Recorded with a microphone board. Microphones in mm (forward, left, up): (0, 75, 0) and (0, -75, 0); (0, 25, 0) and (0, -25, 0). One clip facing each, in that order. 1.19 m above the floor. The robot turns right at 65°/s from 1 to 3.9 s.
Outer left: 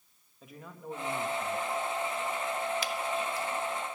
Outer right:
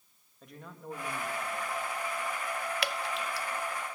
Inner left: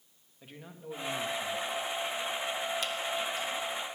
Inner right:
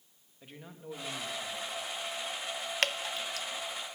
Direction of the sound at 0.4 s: 5° left.